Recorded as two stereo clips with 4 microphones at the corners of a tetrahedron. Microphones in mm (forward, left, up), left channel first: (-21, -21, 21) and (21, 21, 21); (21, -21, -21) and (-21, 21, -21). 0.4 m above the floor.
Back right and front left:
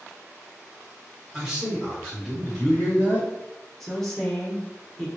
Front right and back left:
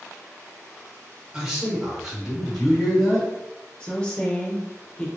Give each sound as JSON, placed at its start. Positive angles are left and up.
{"t": 1.3, "sound": "a man speaking", "azimuth_deg": 90, "distance_m": 1.3}
{"t": 3.8, "sound": "a woman speaking", "azimuth_deg": -60, "distance_m": 0.8}